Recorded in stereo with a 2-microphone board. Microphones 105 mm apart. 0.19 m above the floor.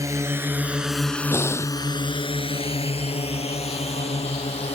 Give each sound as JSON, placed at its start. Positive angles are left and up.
{"t": 0.0, "sound": "a drone", "side_deg": -30}
{"t": 1.3, "sound": "breathing", "side_deg": 25}